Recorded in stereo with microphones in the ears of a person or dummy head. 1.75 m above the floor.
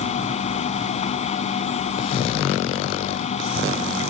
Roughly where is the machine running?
Left.